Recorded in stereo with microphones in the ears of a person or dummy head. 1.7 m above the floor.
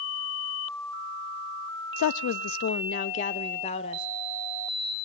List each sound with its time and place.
2.0 s a woman speaking: 70° left (ahead or behind), 0.5 m; by 4.1 s 30° left (ahead or behind), 1.2 m